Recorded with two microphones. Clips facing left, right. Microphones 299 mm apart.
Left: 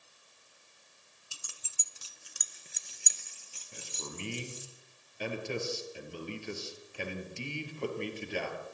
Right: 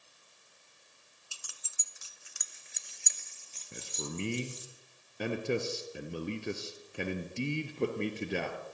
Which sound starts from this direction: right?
A man speaking, at 3.7 s.